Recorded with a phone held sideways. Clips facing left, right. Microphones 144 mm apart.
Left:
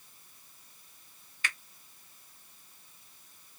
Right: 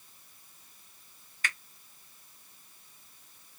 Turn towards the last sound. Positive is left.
turn(degrees=-45)  # may be behind; listen again after turning